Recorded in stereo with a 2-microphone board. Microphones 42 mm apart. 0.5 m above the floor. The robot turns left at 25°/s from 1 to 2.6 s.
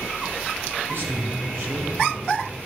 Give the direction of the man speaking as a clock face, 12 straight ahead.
3 o'clock.